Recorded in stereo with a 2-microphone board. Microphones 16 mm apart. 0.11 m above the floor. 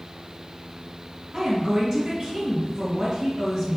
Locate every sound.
1.3 s a woman speaking: 30° right (ahead or behind), 1.4 m